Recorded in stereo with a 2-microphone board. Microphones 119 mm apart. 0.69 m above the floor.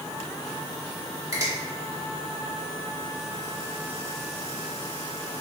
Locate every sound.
1.3 s a finger snap: 30° right (ahead or behind), 1.2 m